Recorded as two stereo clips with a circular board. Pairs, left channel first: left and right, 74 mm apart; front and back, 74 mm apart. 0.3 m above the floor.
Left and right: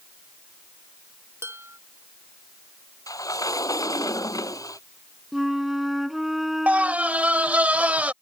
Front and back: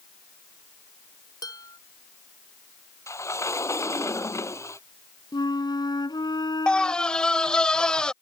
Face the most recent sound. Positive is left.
turn(degrees=-55)